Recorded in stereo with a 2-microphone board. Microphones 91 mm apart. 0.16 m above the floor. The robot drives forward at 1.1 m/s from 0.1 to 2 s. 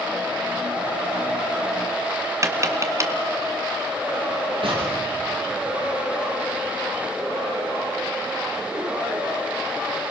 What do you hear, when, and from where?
2.4 s tapping: 35° right (ahead or behind), 1.9 m
4.6 s an explosion: 70° right (ahead or behind), 5 m